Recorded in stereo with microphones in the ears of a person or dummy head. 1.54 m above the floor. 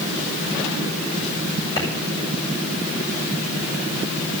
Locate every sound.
1.8 s a clap: 20° left (ahead or behind), 7.5 m